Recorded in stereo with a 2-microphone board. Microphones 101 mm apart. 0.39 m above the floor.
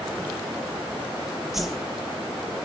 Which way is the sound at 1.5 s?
5° right (ahead or behind).